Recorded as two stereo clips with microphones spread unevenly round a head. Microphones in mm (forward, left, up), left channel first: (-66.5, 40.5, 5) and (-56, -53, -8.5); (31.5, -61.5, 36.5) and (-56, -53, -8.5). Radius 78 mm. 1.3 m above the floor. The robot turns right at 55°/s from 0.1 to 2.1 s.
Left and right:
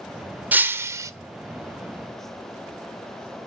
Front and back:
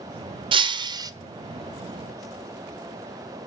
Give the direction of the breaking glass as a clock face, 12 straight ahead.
5 o'clock.